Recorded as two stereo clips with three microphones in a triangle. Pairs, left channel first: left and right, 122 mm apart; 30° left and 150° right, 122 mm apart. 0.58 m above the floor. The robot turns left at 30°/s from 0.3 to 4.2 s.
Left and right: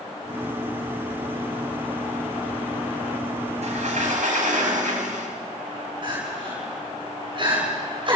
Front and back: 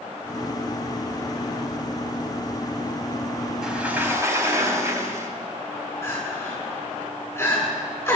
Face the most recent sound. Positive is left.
turn(degrees=-40)